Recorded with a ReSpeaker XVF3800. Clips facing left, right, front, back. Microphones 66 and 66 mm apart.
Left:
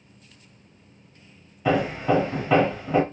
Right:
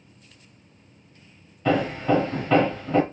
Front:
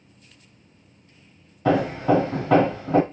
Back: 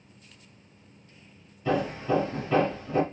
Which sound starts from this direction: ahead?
Hammering, at 1.6 s.